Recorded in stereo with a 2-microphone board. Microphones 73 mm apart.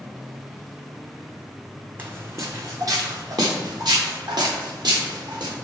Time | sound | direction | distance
2.0 | footsteps | 25° right (ahead or behind) | 0.6 m